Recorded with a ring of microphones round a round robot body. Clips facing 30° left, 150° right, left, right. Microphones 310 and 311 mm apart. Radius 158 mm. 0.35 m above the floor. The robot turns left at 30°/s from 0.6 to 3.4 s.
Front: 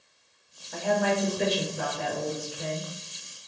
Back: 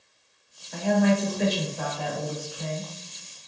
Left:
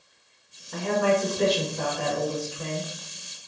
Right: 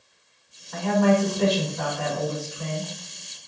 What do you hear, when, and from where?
0.7 s a woman speaking: 115° left, 0.9 m; by 3.5 s 35° left, 0.9 m